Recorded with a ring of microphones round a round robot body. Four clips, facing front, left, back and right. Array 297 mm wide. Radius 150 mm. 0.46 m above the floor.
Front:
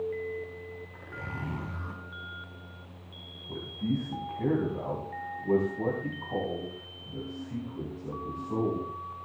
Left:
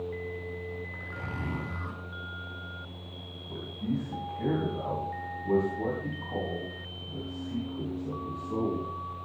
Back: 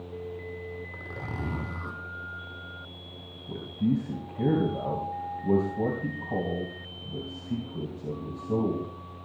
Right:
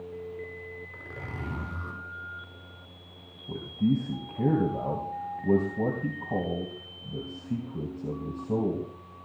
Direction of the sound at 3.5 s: 130° right.